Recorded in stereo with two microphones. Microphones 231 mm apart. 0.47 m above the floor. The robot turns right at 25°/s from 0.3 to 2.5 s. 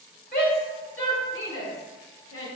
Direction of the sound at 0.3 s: 40° left (ahead or behind).